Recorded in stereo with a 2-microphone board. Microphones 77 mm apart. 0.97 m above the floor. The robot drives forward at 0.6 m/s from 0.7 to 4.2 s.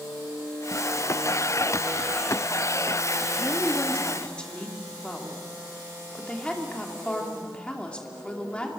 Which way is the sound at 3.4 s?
20° left (ahead or behind).